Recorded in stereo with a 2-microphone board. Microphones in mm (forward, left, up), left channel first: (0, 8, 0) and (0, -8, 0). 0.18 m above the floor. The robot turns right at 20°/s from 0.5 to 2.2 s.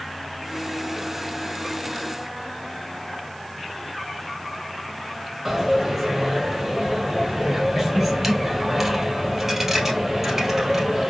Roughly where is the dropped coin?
Right.